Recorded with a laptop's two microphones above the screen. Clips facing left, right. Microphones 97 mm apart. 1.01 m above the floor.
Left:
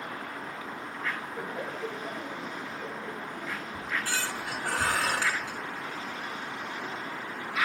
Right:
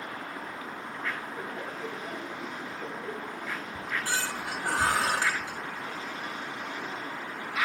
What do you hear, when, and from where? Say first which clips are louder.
1.4 s laughter: left 2 dB; 50° left (ahead or behind), 1.6 m; by 4.7 s 10° right (ahead or behind), 3 m
3.7 s a squeak: right 1 dB; 20° right (ahead or behind), 4.5 m